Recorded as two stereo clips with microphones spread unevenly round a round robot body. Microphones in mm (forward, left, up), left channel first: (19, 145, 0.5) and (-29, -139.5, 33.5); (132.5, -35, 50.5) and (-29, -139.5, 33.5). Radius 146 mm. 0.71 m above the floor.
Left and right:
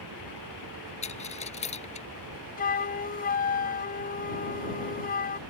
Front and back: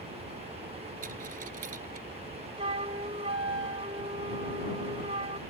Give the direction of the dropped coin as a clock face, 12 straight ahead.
7 o'clock.